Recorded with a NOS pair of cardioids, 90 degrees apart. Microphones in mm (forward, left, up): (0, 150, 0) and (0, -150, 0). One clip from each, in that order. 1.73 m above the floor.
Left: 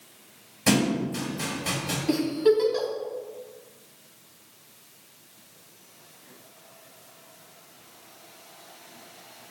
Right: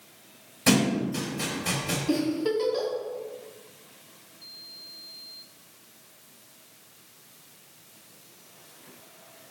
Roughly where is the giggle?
Ahead left.